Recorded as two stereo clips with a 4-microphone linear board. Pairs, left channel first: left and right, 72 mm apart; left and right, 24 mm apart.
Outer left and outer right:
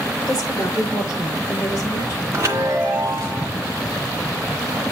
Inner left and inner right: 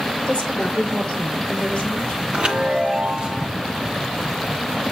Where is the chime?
40° right (ahead or behind), 1.7 m.